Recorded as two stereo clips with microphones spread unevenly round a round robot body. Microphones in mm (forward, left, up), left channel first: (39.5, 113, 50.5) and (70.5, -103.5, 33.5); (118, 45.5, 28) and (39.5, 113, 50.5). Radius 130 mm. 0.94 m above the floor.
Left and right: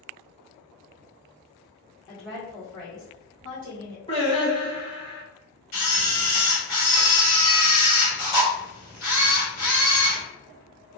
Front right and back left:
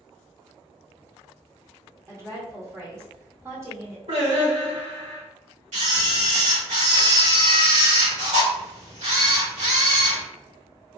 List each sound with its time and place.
2.1 s a woman speaking: 70° left, 1.2 m
4.1 s singing: 165° left, 1.8 m
5.7 s a camera shutter: 140° left, 1.8 m